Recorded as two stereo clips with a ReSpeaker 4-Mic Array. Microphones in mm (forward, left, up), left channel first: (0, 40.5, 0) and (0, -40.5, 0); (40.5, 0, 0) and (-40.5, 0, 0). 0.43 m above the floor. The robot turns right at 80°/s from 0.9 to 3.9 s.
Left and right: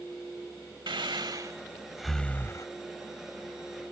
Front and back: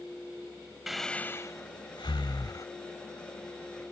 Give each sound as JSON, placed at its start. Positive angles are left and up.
{"t": 0.9, "sound": "breathing", "azimuth_deg": -95}